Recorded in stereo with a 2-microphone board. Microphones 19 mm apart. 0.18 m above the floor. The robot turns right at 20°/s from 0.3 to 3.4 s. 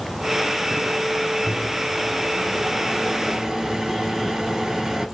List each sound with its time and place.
1.5 s a microwave: 20° right (ahead or behind), 0.9 m; by 5.1 s 30° right (ahead or behind), 0.9 m